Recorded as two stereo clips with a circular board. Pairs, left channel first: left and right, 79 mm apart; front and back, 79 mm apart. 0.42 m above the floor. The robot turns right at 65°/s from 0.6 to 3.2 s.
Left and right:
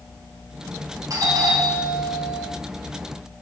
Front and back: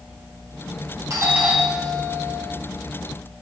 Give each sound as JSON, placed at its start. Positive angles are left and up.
{"t": 1.1, "sound": "a doorbell", "azimuth_deg": -130, "distance_m": 7.5}